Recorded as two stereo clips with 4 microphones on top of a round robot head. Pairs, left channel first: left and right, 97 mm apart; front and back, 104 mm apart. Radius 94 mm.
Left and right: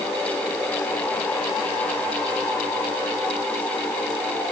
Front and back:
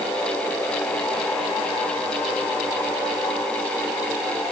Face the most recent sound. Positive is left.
No sound to turn to.